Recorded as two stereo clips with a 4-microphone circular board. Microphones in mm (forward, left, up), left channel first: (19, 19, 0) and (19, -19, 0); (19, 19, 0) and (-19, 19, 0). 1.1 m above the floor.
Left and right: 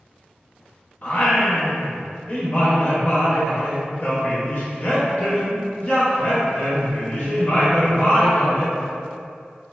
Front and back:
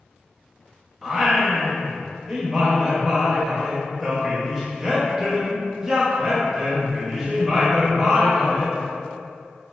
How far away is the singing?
About 0.6 m.